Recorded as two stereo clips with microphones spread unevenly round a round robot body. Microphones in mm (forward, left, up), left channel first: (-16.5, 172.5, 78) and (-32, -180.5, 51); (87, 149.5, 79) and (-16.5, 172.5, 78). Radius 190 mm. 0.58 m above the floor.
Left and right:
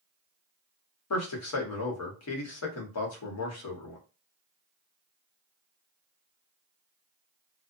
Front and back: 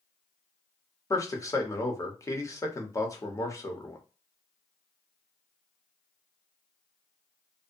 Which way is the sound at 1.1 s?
45° left.